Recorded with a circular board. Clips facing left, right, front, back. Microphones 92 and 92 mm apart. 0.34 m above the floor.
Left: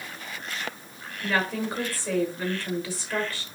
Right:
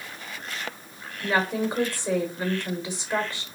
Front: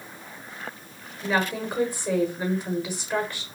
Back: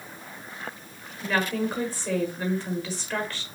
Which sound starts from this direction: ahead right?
A woman speaking, at 1.2 s.